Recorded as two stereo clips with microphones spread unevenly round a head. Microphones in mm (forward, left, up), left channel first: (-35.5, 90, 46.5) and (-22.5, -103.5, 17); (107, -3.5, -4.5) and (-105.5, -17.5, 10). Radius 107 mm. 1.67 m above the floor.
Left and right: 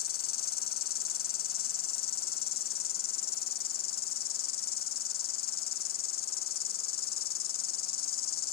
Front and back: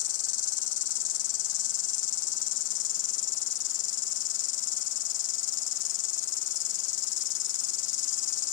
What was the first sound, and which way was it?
An insect, 45° left.